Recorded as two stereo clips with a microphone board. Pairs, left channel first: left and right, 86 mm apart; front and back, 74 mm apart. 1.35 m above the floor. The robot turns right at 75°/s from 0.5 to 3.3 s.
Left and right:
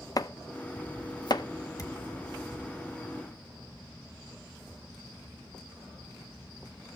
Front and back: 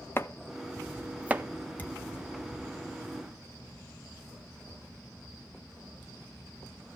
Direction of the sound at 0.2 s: 50° left.